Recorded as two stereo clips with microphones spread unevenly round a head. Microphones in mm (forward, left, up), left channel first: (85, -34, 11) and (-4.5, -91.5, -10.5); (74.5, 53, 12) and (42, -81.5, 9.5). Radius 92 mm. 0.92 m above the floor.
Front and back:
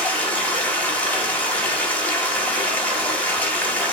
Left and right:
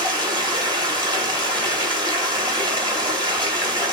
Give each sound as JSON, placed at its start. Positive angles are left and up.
{"t": 0.0, "sound": "running water", "azimuth_deg": -45, "distance_m": 1.5}